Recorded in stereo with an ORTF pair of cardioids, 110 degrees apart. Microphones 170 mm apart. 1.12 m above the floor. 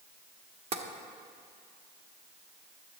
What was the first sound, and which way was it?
Tapping, 40° right.